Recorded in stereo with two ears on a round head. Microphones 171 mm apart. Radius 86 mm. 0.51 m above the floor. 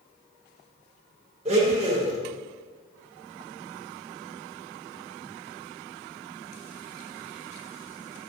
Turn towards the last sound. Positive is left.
turn(degrees=-35)  # may be behind; listen again after turning